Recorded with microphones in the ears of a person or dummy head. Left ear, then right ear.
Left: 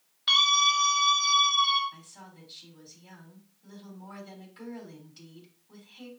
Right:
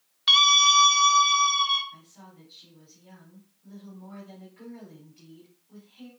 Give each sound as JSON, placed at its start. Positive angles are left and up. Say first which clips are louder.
{"t": 0.3, "sound": "a scream", "louder": "right 4 dB", "side_deg": -20, "distance_m": 1.0}
{"t": 1.9, "sound": "a woman speaking", "louder": "even", "side_deg": 50, "distance_m": 3.5}